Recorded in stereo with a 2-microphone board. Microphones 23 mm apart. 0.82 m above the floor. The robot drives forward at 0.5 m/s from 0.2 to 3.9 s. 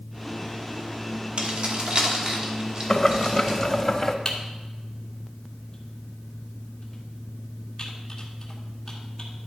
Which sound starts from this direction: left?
Typing on a keyboard, at 4.2 s.